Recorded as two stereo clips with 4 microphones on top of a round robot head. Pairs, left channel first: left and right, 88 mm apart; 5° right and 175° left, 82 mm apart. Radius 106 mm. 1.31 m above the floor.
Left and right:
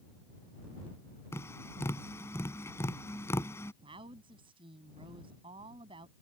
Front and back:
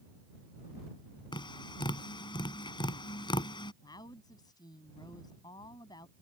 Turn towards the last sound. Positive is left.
turn(degrees=-55)